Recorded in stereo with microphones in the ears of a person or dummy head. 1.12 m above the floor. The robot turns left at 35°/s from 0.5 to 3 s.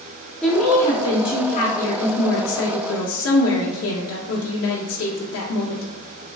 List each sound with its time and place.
0.4 s a woman speaking: 175° left, 0.6 m; by 6.3 s 90° left, 0.6 m